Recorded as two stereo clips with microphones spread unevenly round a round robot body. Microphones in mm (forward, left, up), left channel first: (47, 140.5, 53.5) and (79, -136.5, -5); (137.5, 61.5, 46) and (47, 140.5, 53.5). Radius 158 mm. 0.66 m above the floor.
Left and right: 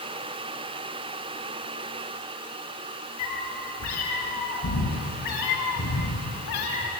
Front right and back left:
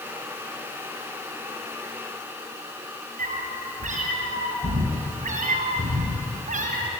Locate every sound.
3.2 s a cat meowing: 135° left, 4.5 m; by 6.9 s 145° left, 2.5 m